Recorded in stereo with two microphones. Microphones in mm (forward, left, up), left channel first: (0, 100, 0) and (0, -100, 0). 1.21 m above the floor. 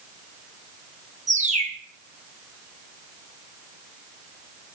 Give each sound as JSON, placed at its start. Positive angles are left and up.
{"t": 1.3, "sound": "a bird", "side_deg": -40, "distance_m": 1.3}